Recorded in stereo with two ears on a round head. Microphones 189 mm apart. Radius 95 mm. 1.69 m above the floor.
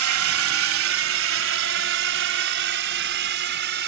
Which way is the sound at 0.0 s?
75° right (ahead or behind).